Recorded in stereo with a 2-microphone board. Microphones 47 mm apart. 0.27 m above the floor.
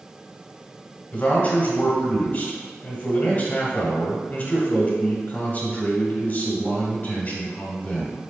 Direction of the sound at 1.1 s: 30° left (ahead or behind).